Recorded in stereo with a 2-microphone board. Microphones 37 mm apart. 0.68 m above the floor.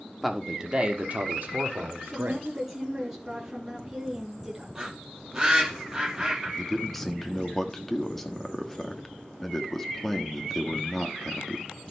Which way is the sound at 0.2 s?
Centre (ahead or behind).